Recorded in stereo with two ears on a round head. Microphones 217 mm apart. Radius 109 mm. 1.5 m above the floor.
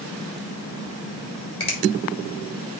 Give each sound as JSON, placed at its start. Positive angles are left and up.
{"t": 1.6, "sound": "a finger snap", "side_deg": 25, "distance_m": 3.5}